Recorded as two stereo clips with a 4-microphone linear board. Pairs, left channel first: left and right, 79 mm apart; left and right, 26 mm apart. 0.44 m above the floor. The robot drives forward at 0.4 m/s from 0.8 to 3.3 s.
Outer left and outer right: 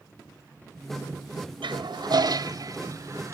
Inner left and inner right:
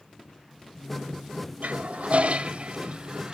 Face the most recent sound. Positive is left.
turn(degrees=-35)  # may be behind; listen again after turning